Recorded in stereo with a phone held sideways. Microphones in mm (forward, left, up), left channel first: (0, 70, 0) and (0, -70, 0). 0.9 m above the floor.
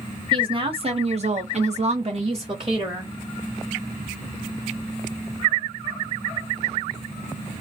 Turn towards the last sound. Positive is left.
turn(degrees=-30)  # may be behind; listen again after turning